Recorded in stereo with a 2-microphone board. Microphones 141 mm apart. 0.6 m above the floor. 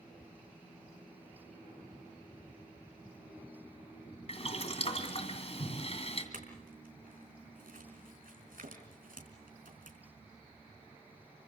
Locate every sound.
4.3 s boiling: 45° left (ahead or behind), 2.5 m
6.3 s a clink: 85° right, 4.5 m